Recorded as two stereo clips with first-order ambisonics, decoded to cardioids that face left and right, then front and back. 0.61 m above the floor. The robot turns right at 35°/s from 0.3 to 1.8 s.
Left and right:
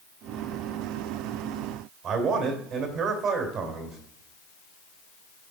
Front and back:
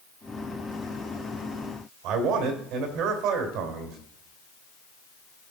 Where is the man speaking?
155° right, 2 m.